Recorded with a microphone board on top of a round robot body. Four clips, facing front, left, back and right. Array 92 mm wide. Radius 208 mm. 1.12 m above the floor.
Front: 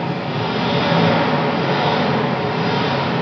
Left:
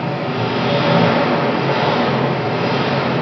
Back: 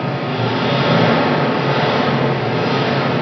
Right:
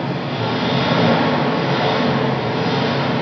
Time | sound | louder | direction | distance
0.0 | an engine running | left 2 dB, back 2 dB | 140° left | 4.5 m